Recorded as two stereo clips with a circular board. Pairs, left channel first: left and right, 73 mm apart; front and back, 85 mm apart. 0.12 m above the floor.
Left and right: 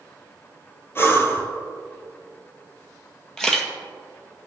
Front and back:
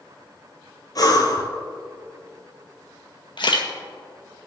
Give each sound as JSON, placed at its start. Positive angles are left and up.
{"t": 0.9, "sound": "breathing", "azimuth_deg": 35, "distance_m": 1.7}
{"t": 3.4, "sound": "a camera shutter", "azimuth_deg": 5, "distance_m": 1.8}